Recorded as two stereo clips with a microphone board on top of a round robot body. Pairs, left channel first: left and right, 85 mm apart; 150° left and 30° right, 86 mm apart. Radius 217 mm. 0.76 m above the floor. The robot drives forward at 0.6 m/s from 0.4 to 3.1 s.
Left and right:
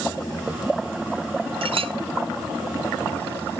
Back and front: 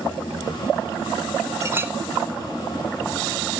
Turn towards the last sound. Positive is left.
turn(degrees=-145)